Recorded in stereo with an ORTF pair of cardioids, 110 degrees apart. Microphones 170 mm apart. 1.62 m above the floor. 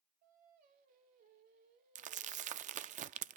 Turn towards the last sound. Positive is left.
turn(degrees=-55)